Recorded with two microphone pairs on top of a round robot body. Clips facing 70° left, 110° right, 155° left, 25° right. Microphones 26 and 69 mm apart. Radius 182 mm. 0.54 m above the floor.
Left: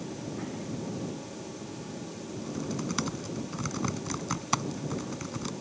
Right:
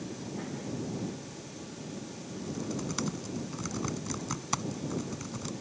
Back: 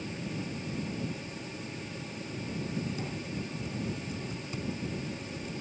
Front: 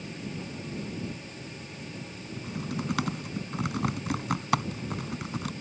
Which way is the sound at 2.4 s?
Straight ahead.